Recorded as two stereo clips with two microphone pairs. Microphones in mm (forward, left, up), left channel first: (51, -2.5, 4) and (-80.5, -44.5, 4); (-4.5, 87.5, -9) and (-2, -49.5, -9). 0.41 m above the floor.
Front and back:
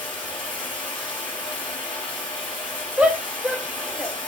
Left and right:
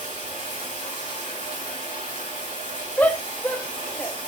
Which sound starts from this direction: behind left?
A shout, at 3.0 s.